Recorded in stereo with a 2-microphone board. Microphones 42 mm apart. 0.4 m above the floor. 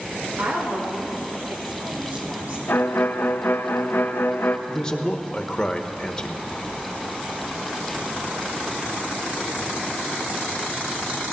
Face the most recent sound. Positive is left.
turn(degrees=15)  # may be behind; listen again after turning